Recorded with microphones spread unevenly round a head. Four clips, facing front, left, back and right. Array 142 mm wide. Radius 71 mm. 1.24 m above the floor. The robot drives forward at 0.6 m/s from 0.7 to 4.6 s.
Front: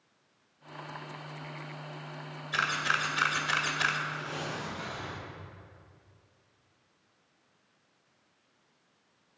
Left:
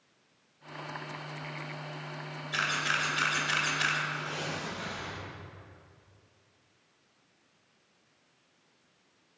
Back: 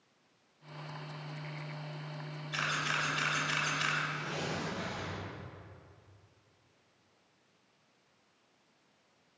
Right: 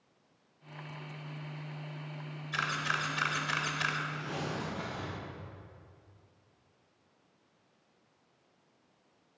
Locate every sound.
2.5 s a camera shutter: 5° left, 3 m
4.1 s tearing paper: 95° right, 5 m; by 5.2 s 100° right, 5 m